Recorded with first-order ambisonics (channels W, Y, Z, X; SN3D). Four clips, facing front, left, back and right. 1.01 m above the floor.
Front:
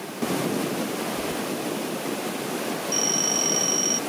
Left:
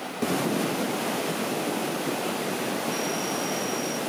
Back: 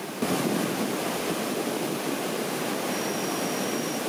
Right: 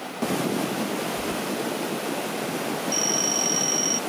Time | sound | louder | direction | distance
1.2 | keys jangling | even, even | 55° right | ?
2.9 | a phone ringing | right 4 dB, front 5 dB | 45° right | ?